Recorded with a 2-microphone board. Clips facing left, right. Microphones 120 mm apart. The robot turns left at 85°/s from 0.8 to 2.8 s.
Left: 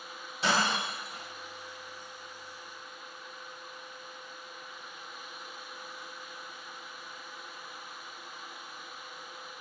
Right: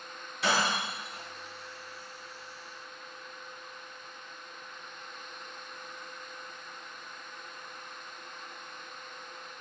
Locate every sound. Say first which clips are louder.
0.4 s breaking glass: even; 25° left (ahead or behind), 2 m; by 1.2 s 65° left (ahead or behind), 2 m